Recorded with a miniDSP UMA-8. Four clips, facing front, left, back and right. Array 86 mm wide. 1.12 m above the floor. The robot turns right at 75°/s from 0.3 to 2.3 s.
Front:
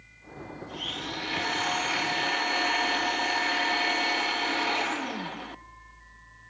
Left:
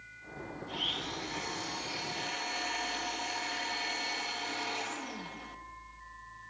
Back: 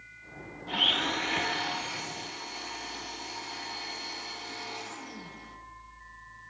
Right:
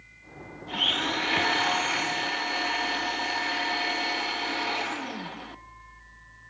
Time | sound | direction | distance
0.7 | a blender | 150° right | 0.8 m